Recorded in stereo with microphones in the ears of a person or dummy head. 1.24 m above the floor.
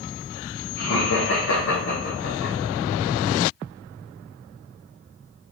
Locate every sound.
0.8 s laughter: 55° left (ahead or behind), 1.7 m